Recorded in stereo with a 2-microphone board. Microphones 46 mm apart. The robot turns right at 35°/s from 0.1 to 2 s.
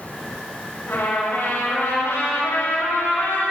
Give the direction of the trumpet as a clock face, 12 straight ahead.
10 o'clock.